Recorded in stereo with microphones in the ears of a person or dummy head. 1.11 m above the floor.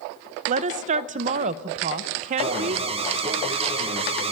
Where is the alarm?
30° right (ahead or behind), 1.9 m.